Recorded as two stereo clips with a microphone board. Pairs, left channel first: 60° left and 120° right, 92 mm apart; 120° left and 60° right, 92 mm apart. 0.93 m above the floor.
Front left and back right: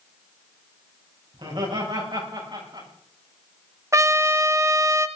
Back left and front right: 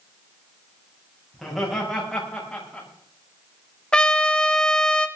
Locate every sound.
1.3 s laughter: 150° right, 5.5 m; by 2.9 s 160° right, 6.5 m
3.9 s a trumpet: 165° right, 0.9 m